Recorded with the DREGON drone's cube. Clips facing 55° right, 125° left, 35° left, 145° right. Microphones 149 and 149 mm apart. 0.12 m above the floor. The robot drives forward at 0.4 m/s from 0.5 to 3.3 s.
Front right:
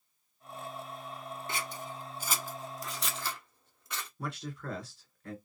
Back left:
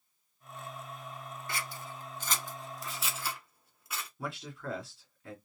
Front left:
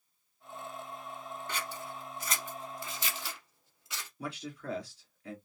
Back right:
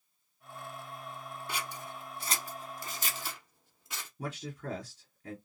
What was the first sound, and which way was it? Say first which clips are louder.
Scissors: front right 1 dB, back right 1 dB; 80° right.